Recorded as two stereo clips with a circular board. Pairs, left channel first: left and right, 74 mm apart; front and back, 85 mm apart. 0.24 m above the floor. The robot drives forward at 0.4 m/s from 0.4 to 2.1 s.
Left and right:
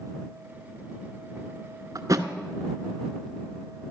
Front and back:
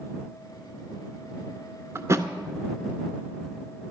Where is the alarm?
I don't hear an alarm.